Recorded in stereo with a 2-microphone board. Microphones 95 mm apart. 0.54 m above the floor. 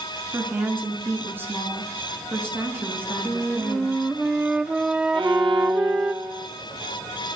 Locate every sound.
0.3 s a woman speaking: 20° right (ahead or behind), 8 m
3.2 s a flute: 10° right (ahead or behind), 1.1 m
5.1 s a violin: 60° right (ahead or behind), 3 m